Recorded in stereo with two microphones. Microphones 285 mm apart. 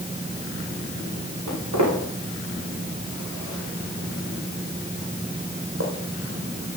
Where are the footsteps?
80° right, 9.5 m; by 5.9 s 60° right (ahead or behind), 3.5 m.